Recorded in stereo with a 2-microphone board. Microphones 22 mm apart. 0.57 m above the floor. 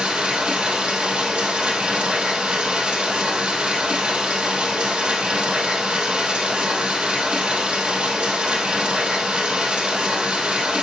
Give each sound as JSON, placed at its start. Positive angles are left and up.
{"t": 0.0, "sound": "running water", "side_deg": -85, "distance_m": 3.5}